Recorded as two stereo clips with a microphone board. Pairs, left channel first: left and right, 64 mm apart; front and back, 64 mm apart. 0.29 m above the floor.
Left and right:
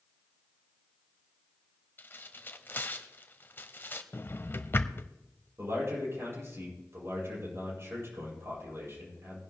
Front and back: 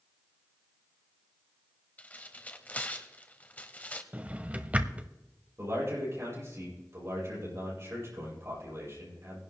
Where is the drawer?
125° left, 0.6 m.